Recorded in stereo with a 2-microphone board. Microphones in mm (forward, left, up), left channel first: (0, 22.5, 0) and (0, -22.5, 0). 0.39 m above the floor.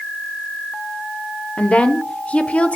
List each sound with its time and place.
1.6 s a woman speaking: 30° left (ahead or behind), 0.9 m